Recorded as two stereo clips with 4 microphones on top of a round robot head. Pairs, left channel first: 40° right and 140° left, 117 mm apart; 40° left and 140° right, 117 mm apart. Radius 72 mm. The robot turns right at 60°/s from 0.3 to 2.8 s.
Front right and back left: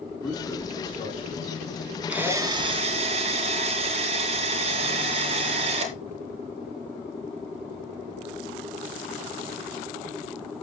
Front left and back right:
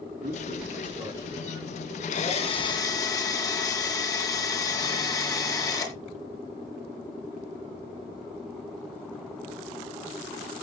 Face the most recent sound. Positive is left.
turn(degrees=100)